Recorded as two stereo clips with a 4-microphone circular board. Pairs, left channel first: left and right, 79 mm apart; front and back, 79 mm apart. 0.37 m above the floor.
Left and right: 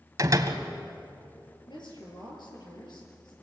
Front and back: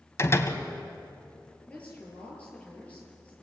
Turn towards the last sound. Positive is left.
turn(degrees=75)